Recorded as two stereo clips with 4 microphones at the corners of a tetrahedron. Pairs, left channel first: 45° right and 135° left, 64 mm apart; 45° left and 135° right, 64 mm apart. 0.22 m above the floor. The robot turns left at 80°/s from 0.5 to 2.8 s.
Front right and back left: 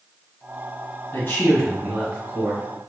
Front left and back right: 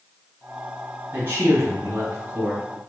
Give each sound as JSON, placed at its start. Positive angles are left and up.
{"t": 1.1, "sound": "a man speaking", "azimuth_deg": -85, "distance_m": 1.6}